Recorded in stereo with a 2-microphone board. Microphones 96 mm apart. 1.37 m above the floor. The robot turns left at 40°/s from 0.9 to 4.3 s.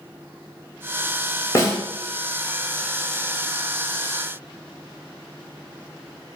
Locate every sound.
1.6 s a snare drum: 35° left (ahead or behind), 0.6 m; by 1.8 s 25° left (ahead or behind), 0.6 m